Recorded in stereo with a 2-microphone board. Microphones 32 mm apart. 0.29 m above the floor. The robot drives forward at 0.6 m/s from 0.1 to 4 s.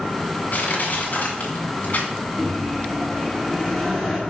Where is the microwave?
Centre (ahead or behind), 2.0 m.